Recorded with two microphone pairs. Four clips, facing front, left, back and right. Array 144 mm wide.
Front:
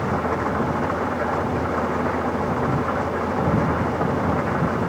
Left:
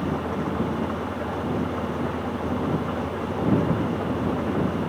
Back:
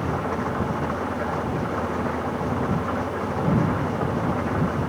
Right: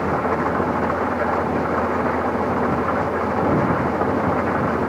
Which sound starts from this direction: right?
An engine running, at 0.0 s.